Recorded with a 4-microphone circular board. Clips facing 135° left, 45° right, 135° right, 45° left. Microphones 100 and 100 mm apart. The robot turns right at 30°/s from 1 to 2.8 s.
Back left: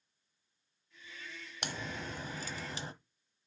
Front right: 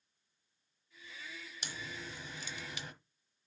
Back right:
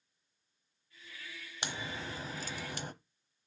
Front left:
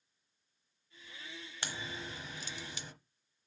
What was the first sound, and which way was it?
A crack, 155° left.